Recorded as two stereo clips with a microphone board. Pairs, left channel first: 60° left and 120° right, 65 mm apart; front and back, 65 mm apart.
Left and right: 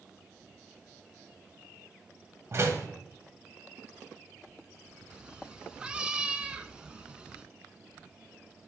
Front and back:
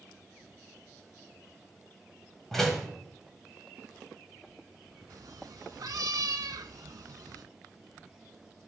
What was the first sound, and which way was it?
A door slam, 85° right.